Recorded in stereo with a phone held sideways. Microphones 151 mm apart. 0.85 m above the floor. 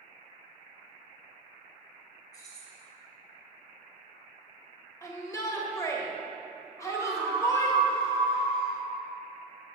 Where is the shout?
20° left (ahead or behind), 1.3 m.